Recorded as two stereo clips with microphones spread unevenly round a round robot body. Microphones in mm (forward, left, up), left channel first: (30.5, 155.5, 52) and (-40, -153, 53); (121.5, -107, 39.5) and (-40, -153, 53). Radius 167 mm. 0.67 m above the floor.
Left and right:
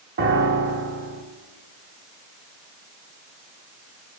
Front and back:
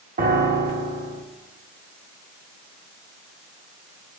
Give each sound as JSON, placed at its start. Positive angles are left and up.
{"t": 0.2, "sound": "a piano", "azimuth_deg": -155, "distance_m": 0.6}